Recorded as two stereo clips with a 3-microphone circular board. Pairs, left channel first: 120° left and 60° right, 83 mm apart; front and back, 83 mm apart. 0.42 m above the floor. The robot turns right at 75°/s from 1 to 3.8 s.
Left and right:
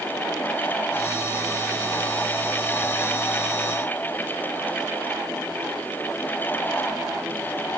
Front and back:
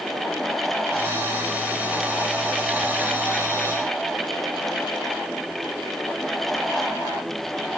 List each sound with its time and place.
Only background noise.